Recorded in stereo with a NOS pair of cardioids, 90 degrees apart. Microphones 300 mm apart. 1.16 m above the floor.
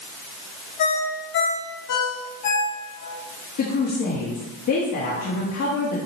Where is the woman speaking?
65° left, 2 m.